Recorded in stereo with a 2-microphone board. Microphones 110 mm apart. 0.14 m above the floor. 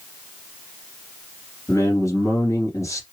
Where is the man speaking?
30° left (ahead or behind), 2.5 m.